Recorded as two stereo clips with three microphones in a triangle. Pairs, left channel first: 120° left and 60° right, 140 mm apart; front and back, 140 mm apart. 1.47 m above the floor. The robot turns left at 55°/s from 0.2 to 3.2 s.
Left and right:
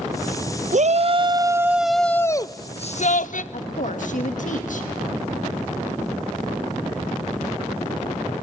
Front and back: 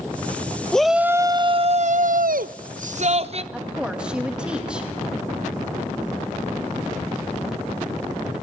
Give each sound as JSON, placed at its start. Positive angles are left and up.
{"t": 0.7, "sound": "a shout", "azimuth_deg": -85, "distance_m": 0.7}
{"t": 3.5, "sound": "a woman speaking", "azimuth_deg": 100, "distance_m": 1.6}